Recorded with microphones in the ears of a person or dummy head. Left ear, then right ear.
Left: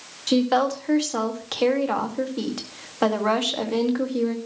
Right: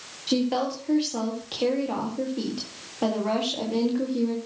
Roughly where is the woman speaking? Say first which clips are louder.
Left 5 dB; left.